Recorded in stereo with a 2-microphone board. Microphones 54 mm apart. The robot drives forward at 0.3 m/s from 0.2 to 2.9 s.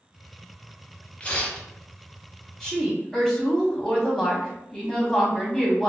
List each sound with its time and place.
1.2 s tearing paper: 20° left (ahead or behind), 0.5 m
2.6 s a woman speaking: centre (ahead or behind), 0.6 m